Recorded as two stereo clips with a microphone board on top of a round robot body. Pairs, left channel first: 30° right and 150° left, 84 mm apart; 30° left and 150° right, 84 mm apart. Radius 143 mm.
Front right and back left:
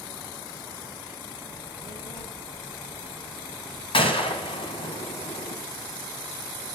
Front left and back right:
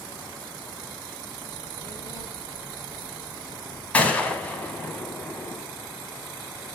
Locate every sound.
1.5 s a child speaking: 15° right, 7.5 m; by 3.8 s 10° right, 4.5 m
3.9 s a gunshot: 45° right, 1.9 m